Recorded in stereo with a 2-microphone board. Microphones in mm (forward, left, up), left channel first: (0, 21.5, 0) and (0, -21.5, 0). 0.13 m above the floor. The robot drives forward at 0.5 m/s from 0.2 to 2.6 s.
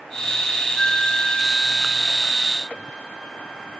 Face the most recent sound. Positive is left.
turn(degrees=10)  # may be behind; listen again after turning